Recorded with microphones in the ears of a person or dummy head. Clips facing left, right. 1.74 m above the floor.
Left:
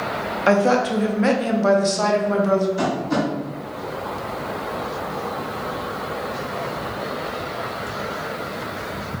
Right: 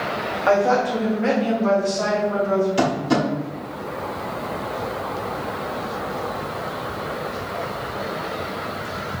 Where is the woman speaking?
30° left (ahead or behind), 0.7 m; by 2.7 s 65° left (ahead or behind), 1.4 m.